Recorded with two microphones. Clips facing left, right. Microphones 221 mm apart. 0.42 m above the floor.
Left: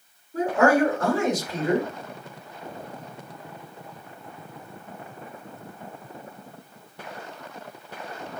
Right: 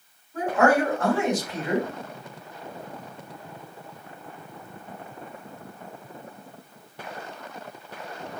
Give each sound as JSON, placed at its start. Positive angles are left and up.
{"t": 0.3, "sound": "a man speaking", "side_deg": 40, "distance_m": 1.5}